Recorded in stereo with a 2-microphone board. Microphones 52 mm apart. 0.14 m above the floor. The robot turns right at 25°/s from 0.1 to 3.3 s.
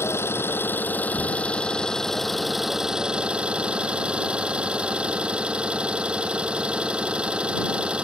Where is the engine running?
120° left; by 8.0 s 160° right.